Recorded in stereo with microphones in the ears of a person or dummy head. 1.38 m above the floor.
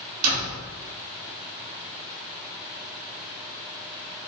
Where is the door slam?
65° right (ahead or behind), 1.7 m.